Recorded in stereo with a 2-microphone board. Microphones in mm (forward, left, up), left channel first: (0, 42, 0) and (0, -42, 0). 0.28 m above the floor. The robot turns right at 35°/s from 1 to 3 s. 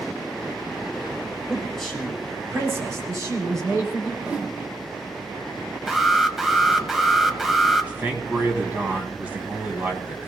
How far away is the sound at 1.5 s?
About 6 m.